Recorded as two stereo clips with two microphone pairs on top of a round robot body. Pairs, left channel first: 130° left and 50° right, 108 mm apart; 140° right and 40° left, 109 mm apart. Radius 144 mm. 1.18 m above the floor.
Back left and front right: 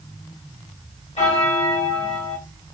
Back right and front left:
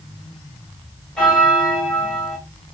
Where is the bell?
135° left, 3.5 m.